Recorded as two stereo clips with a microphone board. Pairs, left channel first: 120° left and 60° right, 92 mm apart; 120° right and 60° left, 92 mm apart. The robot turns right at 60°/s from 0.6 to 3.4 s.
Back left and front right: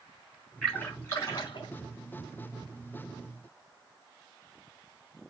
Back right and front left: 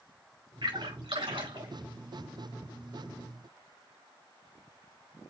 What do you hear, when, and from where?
0.6 s a splash: 35° left, 5 m; by 1.7 s 100° left, 5 m